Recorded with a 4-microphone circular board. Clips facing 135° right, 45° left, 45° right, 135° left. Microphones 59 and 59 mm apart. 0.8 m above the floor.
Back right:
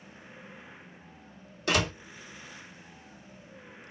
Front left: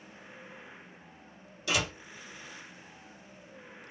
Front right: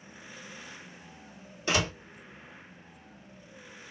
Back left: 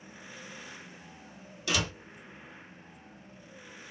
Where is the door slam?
100° right, 1.1 m.